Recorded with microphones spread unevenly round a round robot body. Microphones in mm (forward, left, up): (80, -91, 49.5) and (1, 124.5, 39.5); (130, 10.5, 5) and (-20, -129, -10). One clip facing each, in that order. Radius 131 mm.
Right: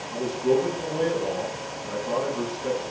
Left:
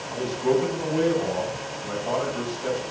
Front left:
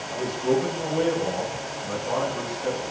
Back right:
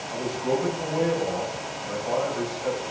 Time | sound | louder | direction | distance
0.1 | a man speaking | even, front left 3 dB | 110° left | 4.5 m